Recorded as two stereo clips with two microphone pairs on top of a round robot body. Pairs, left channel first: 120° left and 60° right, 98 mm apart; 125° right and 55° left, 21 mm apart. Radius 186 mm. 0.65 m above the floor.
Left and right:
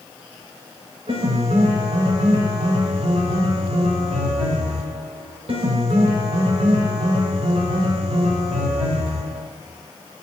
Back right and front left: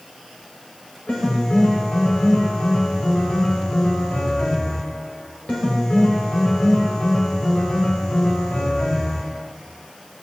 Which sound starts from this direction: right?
A piano, at 1.1 s.